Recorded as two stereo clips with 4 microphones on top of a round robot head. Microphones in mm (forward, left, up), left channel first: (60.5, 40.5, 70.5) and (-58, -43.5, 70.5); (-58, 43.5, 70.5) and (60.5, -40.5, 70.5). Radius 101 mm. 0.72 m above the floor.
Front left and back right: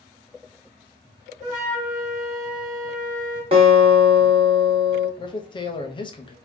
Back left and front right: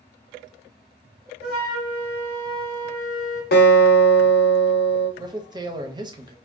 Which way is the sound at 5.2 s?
5° left.